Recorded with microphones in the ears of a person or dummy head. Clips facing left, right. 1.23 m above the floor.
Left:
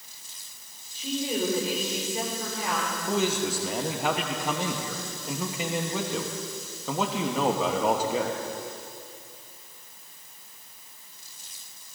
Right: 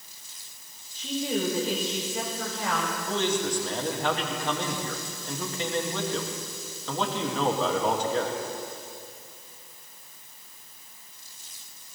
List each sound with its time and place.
0.9 s a woman speaking: 10° left (ahead or behind), 4 m
3.1 s a man speaking: 5° left (ahead or behind), 0.9 m